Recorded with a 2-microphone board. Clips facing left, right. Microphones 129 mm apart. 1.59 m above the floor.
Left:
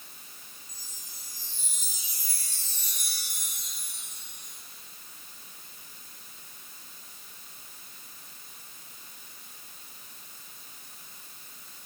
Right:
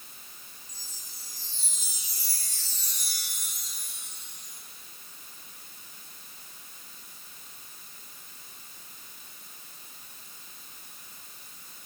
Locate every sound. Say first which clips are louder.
0.7 s a chime: even; 55° left (ahead or behind), 8.5 m